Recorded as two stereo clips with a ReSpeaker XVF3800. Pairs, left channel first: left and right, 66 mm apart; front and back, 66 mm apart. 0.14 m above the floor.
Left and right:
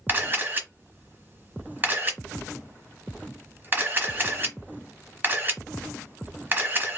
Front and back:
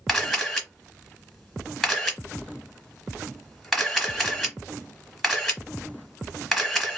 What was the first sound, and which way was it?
A camera shutter, 90° right.